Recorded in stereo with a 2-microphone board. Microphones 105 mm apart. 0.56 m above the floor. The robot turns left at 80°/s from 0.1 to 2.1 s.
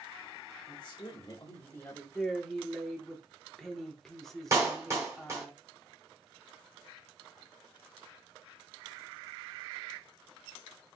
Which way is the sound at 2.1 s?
5° left (ahead or behind).